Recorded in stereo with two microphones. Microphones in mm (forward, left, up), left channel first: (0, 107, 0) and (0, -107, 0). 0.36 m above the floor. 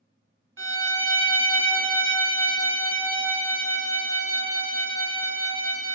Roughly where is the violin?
Right.